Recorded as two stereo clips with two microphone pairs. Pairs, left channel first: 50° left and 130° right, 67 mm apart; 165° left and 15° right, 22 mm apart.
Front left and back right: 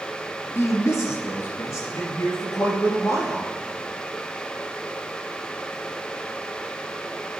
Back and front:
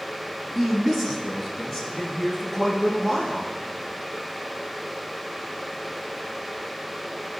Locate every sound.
0.6 s a man speaking: 75° left, 1.9 m; by 3.5 s 85° left, 4.5 m